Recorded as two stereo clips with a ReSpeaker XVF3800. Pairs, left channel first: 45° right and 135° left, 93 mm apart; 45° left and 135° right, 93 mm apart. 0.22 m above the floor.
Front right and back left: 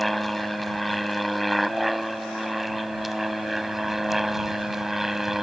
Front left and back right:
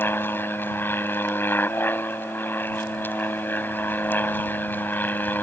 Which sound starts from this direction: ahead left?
An aircraft, at 0.0 s.